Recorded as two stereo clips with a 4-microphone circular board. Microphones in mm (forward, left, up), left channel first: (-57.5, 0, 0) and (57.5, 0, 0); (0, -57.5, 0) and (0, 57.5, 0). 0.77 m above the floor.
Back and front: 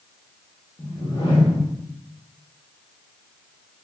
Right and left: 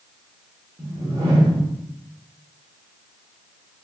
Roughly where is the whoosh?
Behind left.